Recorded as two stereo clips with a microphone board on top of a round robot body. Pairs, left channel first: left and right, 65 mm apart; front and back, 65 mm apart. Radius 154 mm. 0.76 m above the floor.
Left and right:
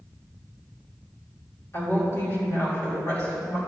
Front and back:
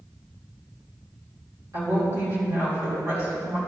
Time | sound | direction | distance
1.7 | a woman speaking | 135° left | 3.5 m